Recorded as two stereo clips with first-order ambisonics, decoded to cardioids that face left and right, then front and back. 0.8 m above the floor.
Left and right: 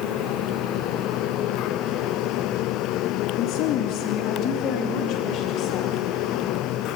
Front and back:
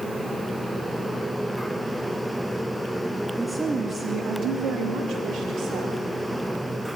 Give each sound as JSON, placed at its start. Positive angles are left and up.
{"t": 3.4, "sound": "a woman speaking", "azimuth_deg": 90, "distance_m": 0.6}